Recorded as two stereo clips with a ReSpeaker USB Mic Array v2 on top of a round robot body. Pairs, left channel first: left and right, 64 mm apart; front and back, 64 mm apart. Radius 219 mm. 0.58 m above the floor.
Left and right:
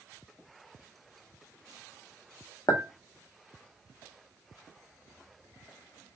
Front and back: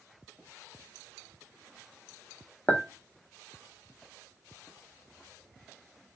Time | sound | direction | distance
2.7 | a clink | 60° left | 1.0 m